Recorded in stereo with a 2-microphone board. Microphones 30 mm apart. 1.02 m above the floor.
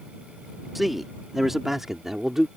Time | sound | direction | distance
0.8 | a man speaking | 5° right (ahead or behind) | ?